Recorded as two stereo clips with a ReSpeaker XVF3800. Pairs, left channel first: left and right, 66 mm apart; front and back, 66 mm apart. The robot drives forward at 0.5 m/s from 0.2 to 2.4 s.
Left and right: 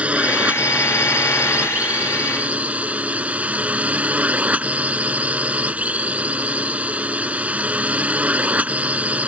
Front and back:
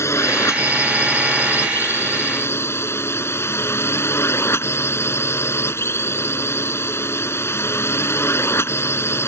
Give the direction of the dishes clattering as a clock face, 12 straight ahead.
No dishes clattering in this recording.